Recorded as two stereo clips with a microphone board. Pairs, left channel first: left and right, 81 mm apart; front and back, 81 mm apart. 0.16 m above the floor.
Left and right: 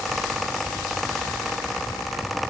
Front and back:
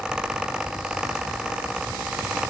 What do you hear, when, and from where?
Only background noise.